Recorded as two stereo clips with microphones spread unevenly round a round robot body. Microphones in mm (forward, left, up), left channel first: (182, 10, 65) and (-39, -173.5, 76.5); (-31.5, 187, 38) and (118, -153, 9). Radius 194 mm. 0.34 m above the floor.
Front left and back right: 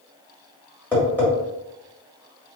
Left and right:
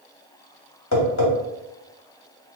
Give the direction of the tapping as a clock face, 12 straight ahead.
8 o'clock.